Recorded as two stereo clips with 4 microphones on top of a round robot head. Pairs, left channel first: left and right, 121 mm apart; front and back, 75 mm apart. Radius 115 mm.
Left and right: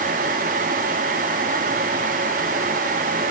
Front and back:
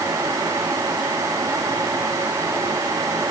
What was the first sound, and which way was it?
Only background noise.